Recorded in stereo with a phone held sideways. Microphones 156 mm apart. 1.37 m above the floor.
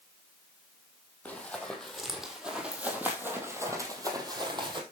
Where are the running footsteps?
5° left (ahead or behind), 3 m; by 4.8 s 30° right (ahead or behind), 2.5 m.